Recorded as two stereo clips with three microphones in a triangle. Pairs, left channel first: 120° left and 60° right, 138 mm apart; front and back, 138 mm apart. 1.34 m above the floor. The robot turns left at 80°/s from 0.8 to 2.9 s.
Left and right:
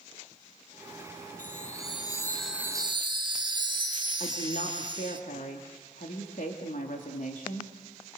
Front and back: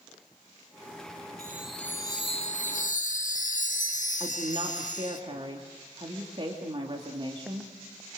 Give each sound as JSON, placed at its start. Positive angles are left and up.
{"t": 1.4, "sound": "a chime", "azimuth_deg": 115, "distance_m": 3.0}
{"t": 4.2, "sound": "a woman speaking", "azimuth_deg": 130, "distance_m": 2.5}